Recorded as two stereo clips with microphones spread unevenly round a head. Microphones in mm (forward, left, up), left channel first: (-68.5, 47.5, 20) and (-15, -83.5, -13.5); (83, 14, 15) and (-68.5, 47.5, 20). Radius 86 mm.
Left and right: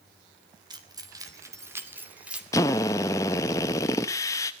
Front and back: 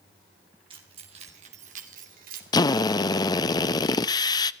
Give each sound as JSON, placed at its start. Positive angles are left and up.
{"t": 0.7, "sound": "keys jangling", "azimuth_deg": -130, "distance_m": 3.0}
{"t": 2.5, "sound": "a drill", "azimuth_deg": 50, "distance_m": 0.6}